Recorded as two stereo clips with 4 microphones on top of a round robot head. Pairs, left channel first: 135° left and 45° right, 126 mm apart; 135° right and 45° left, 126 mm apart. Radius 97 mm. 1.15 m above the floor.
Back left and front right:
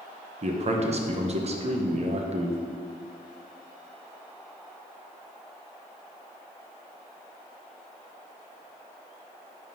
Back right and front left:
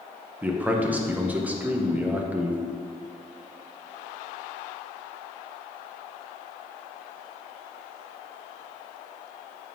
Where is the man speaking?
30° right, 0.9 m.